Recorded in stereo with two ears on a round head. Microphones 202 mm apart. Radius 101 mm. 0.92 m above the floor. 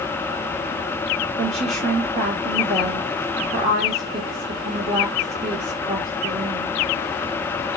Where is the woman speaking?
30° right (ahead or behind), 1.2 m.